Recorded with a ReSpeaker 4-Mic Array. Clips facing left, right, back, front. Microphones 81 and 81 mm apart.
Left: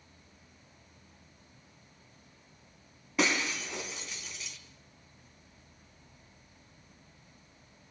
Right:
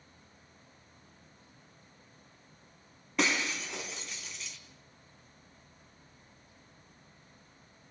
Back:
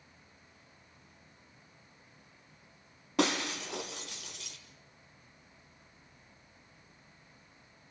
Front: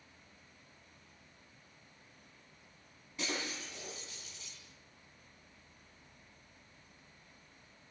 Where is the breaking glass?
175° left, 3 m.